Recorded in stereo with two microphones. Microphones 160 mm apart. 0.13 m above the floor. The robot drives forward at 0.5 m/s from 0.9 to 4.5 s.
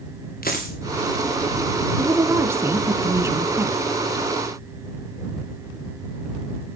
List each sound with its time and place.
0.4 s a dropped coin: 65° left (ahead or behind), 4.5 m
2.0 s a woman speaking: 15° right (ahead or behind), 1.5 m